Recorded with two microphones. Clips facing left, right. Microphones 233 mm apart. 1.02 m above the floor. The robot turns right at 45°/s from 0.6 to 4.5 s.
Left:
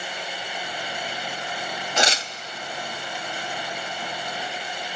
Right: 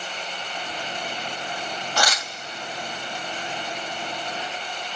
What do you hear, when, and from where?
2.0 s tearing paper: 20° left (ahead or behind), 0.8 m; by 2.3 s 35° left (ahead or behind), 0.8 m